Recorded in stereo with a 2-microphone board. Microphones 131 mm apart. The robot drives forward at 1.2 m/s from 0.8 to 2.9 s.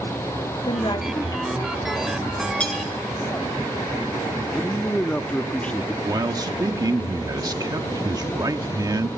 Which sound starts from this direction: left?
A woman speaking, at 0.7 s.